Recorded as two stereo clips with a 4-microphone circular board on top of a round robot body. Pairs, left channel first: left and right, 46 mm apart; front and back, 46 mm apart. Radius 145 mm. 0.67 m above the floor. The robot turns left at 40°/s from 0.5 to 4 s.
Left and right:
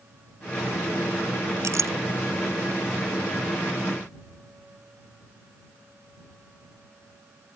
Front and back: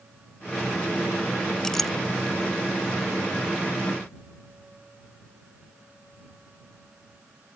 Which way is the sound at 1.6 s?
75° right.